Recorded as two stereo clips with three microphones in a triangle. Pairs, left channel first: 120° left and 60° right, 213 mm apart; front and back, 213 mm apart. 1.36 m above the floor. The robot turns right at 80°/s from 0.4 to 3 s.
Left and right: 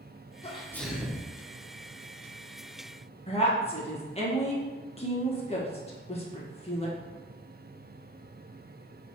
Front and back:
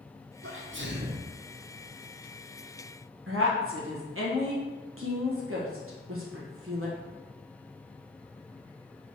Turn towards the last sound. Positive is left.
turn(degrees=180)